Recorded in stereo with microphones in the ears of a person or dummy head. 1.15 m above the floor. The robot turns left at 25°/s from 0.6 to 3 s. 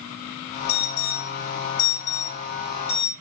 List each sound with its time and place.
0.7 s an alarm: 55° left (ahead or behind), 9 m; by 3.1 s centre (ahead or behind), 9 m